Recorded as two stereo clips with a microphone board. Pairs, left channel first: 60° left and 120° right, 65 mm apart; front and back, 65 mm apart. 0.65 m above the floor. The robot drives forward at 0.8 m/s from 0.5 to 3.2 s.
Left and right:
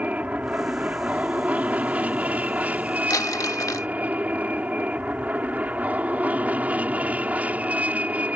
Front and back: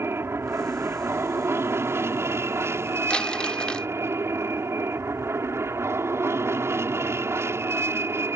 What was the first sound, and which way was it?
An aircraft, 175° right.